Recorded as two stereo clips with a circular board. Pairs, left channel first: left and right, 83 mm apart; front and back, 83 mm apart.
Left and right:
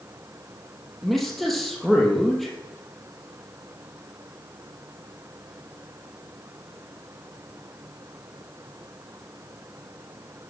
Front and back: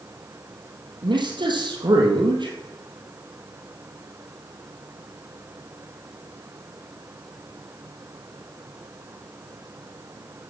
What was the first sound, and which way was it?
A man speaking, straight behind.